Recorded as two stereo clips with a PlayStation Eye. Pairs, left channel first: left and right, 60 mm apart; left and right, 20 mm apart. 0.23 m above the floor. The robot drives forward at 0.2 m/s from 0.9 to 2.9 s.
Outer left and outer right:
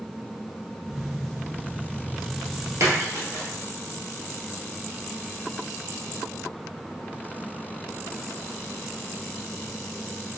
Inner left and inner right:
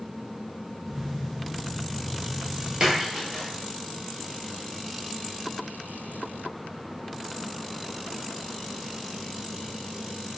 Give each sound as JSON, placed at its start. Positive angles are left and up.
{"t": 2.8, "sound": "a splash", "side_deg": -55, "distance_m": 1.2}